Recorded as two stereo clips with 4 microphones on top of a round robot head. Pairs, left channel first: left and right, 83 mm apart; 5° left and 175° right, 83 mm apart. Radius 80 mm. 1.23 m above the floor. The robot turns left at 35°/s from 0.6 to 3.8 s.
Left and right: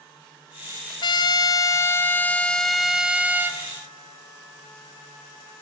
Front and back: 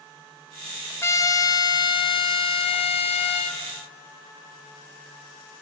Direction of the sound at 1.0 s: 65° left.